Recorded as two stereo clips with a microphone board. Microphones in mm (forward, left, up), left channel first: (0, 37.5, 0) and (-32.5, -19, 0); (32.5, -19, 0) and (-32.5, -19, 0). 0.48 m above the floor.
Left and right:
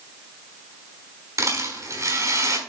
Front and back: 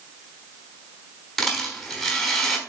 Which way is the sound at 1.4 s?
90° right.